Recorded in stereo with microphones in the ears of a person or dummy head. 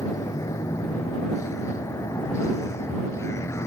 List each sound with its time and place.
0.0 s a vehicle: 20° left (ahead or behind); by 3.7 s 15° left (ahead or behind)